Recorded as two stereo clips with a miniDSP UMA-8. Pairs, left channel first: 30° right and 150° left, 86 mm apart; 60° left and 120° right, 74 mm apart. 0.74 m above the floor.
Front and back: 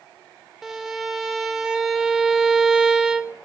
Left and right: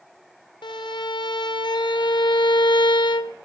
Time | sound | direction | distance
0.6 | a violin | 65° left | 1.3 m